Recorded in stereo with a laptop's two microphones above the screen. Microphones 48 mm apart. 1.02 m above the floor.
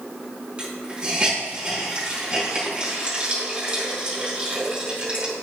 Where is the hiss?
25° right (ahead or behind), 3.5 m.